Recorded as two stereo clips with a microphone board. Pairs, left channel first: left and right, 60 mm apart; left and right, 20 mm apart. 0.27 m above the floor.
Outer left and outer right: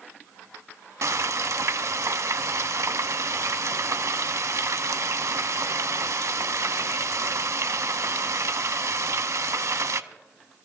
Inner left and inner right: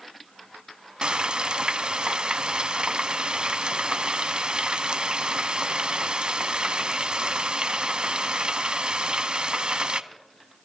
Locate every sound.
1.0 s frying: 60° right (ahead or behind), 0.5 m